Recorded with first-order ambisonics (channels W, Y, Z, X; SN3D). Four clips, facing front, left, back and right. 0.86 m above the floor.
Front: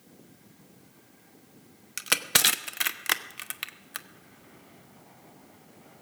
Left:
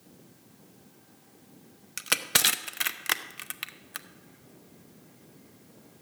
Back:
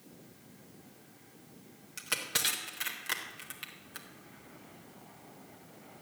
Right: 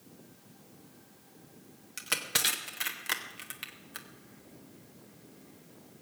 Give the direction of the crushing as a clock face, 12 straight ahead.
11 o'clock.